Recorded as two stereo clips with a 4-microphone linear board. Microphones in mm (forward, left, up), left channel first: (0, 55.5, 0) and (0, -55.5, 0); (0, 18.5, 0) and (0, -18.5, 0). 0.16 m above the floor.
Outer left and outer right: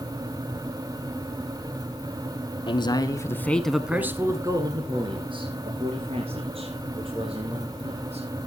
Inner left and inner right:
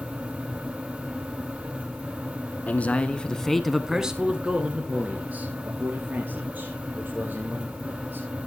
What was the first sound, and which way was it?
A man speaking, 45° left (ahead or behind).